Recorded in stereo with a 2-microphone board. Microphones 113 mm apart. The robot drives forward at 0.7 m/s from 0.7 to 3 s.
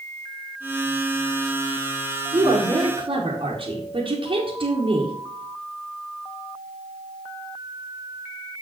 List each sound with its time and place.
2.3 s a woman speaking: 40° right (ahead or behind), 2 m; by 5.2 s 50° right (ahead or behind), 1.7 m